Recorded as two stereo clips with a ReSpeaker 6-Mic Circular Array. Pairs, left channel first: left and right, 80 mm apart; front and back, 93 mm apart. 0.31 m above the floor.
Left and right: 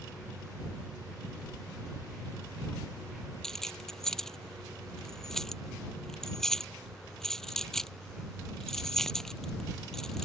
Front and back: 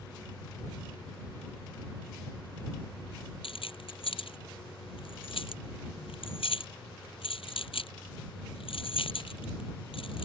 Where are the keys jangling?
5° left.